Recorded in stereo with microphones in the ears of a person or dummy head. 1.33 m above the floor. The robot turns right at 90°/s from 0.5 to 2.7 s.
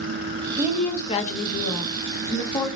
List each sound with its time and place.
0.6 s a woman speaking: 20° right, 1.0 m; by 2.7 s 170° left, 1.0 m